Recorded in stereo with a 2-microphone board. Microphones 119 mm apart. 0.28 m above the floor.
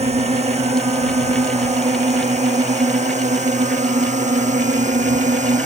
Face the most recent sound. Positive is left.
turn(degrees=-80)